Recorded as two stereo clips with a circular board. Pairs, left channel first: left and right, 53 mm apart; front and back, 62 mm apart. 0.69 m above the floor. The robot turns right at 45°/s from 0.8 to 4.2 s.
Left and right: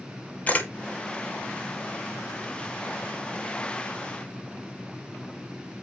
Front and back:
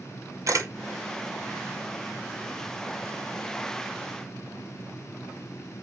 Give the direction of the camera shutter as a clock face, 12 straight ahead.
7 o'clock.